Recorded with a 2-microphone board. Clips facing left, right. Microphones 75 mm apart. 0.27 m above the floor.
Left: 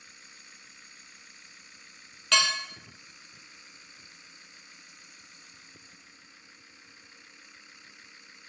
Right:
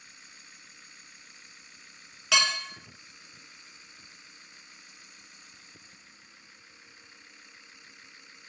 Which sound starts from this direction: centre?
Dishes clattering, at 2.3 s.